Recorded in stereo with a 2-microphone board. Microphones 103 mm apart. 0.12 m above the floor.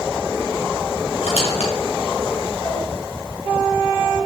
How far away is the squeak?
About 3 m.